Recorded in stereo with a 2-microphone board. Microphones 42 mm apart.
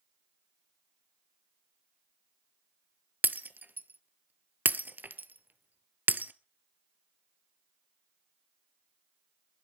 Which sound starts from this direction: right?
Breaking glass, at 3.2 s.